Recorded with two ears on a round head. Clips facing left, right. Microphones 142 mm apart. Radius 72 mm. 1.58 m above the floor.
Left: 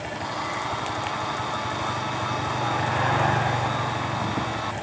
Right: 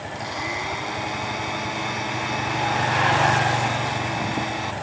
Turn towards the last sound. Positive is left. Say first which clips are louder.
# right 2 dB
turn(degrees=-20)  # may be behind; listen again after turning